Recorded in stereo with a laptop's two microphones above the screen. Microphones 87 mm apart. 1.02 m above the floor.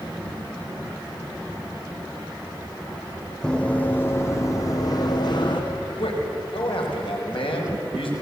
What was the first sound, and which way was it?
Running footsteps, 10° left (ahead or behind).